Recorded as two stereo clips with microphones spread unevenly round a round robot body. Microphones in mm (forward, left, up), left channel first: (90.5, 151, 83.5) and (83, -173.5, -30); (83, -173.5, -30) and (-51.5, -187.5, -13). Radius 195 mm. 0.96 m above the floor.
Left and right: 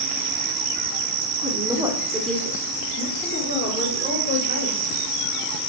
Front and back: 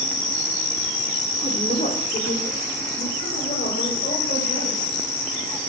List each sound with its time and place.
1.4 s a woman speaking: 25° right, 3 m; by 5.1 s 45° left, 5 m